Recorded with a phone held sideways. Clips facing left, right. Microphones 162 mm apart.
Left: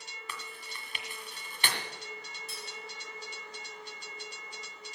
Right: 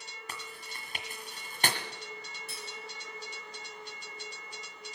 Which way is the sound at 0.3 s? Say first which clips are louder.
Even; 45° right (ahead or behind).